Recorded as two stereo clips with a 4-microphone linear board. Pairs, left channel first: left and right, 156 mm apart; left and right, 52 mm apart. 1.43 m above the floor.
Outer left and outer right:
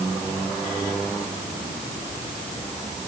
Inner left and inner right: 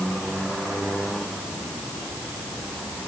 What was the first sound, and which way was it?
Only background noise.